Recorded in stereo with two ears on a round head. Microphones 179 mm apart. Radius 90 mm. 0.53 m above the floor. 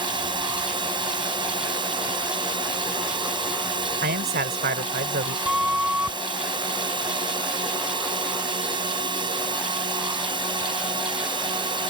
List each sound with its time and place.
0.0 s a drone: 25° right (ahead or behind)
4.0 s a man speaking: 50° right (ahead or behind)
5.5 s a flute: 5° right (ahead or behind)